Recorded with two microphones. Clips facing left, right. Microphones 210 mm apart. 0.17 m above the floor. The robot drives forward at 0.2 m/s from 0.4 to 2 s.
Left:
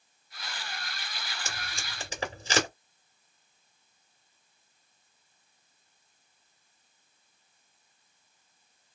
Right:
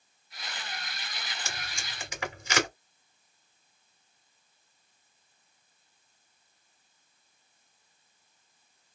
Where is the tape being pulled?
35° left (ahead or behind), 2 m.